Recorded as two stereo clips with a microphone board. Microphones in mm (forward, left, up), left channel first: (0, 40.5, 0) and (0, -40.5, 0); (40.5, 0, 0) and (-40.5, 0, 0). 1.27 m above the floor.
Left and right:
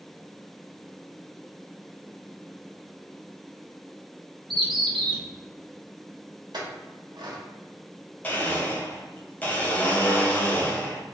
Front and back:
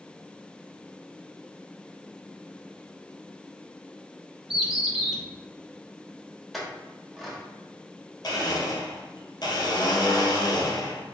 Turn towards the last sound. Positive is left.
turn(degrees=25)